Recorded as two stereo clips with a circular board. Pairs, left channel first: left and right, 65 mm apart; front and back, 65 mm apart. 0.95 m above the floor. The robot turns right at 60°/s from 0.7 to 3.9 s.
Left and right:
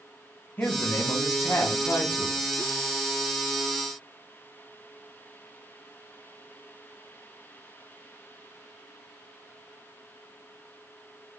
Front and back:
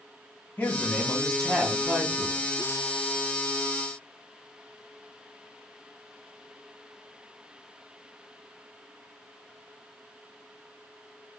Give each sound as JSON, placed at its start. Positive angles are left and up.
{"t": 0.6, "sound": "a man speaking", "azimuth_deg": 40, "distance_m": 1.1}